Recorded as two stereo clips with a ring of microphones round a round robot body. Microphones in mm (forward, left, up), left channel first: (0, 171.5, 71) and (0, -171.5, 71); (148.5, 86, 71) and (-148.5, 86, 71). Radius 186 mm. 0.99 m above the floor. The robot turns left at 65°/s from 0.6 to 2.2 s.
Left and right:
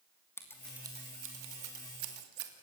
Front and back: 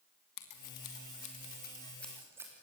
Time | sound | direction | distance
0.4 | scissors | 5° left | 2.5 m